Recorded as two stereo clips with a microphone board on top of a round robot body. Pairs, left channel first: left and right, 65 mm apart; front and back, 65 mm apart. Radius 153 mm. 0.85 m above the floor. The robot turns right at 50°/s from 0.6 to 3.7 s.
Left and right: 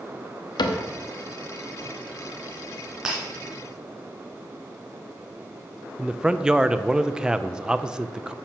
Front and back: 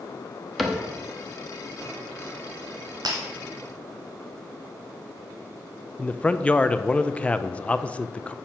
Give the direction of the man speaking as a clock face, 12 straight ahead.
1 o'clock.